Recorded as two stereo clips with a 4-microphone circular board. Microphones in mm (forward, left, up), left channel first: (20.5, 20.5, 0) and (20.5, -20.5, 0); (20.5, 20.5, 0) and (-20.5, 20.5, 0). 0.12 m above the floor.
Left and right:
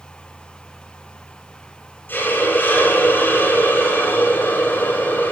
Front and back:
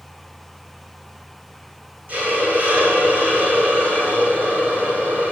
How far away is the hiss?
About 9.5 m.